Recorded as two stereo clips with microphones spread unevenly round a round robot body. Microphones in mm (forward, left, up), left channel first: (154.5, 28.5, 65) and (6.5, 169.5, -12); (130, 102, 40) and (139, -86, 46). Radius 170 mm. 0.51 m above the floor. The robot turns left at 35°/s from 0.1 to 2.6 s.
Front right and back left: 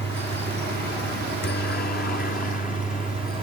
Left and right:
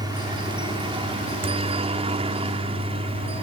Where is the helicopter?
40° right; by 3.4 s 90° right.